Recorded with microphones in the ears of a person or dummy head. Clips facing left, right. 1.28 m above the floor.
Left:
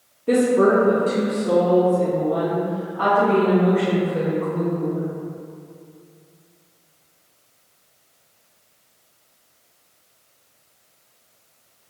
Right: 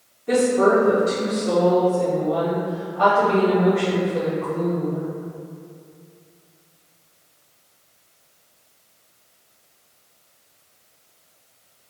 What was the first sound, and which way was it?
A woman speaking, 40° left (ahead or behind).